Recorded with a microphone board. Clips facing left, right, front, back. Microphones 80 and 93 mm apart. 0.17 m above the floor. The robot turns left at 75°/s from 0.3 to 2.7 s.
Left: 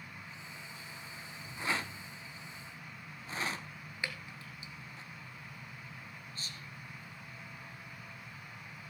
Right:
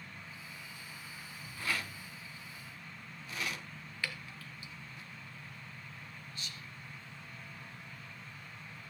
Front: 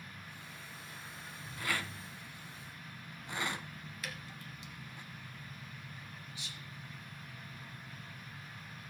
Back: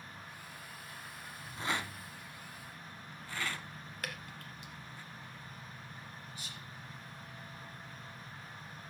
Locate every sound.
1.6 s a rattle: 145° left, 1.0 m; by 5.0 s 60° left, 1.0 m
4.0 s dripping: 155° left, 2.0 m
6.3 s whispering: 140° left, 3.5 m